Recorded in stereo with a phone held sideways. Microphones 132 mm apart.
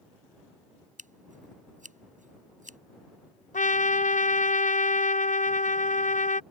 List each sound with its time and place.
1.0 s scissors: 75° right (ahead or behind)
3.5 s a trumpet: 70° left (ahead or behind)